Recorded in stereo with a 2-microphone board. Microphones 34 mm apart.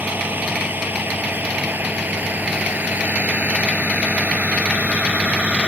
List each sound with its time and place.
0.0 s a vehicle: 70° right (ahead or behind); by 5.7 s 40° right (ahead or behind)